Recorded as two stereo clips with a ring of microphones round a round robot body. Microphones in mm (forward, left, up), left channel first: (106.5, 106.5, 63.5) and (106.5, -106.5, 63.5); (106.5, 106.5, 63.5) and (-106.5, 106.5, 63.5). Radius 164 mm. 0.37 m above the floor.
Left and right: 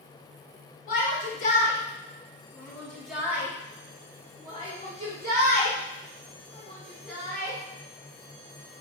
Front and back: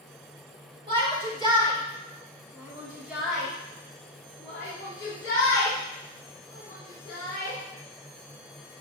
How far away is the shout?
About 1.6 m.